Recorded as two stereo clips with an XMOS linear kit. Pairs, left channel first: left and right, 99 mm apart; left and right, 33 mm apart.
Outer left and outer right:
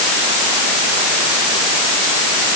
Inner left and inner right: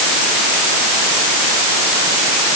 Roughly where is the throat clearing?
No throat clearing in this recording.